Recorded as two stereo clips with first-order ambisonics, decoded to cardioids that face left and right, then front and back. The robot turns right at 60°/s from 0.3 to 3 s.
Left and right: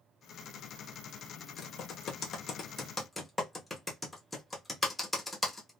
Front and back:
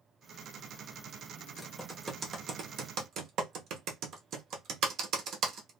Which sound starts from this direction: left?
Typing on a keyboard, at 1.6 s.